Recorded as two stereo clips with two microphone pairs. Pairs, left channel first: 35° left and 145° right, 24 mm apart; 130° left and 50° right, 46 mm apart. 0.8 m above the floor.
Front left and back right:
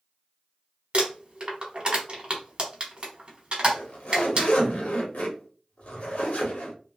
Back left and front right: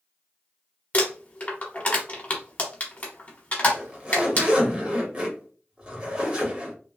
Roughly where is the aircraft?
No aircraft in this recording.